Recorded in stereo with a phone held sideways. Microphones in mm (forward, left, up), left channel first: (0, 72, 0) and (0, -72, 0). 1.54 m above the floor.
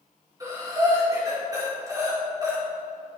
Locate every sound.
0.4 s breathing: 25° right (ahead or behind), 3.5 m